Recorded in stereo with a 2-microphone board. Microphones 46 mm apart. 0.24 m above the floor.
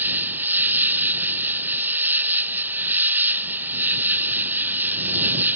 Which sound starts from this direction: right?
An insect, at 0.0 s.